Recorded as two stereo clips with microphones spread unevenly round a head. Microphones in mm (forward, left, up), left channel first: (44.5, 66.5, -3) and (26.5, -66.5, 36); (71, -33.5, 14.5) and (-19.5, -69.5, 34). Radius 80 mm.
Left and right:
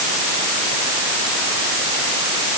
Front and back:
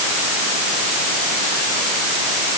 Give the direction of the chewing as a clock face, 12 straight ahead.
No chewing in this recording.